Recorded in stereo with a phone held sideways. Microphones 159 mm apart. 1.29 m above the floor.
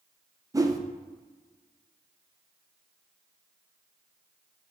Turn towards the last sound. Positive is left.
turn(degrees=-20)  # may be behind; listen again after turning